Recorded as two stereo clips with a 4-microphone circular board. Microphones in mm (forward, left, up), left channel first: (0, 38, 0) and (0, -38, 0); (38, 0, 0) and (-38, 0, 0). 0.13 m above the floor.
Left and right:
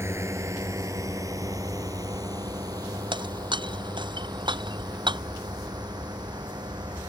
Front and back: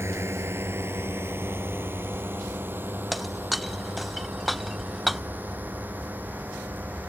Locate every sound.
0.0 s a drone: 135° right; by 7.1 s 110° right
3.1 s breaking glass: 90° right